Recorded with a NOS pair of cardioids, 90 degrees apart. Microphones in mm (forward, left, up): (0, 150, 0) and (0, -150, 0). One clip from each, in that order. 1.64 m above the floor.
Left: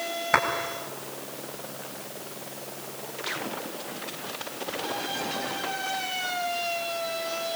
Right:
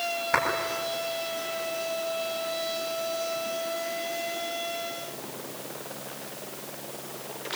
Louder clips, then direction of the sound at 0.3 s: Left 3 dB; 30° left.